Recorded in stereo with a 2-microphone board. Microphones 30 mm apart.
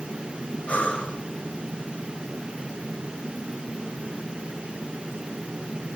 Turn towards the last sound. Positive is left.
turn(degrees=50)  # may be behind; listen again after turning